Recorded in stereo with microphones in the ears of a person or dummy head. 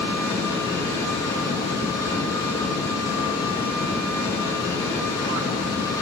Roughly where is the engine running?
Centre.